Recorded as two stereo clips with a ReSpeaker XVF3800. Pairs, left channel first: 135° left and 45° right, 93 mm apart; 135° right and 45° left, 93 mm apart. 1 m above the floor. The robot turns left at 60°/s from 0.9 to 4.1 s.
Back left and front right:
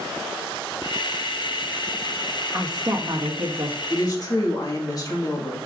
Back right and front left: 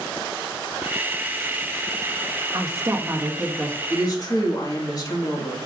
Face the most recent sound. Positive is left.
turn(degrees=180)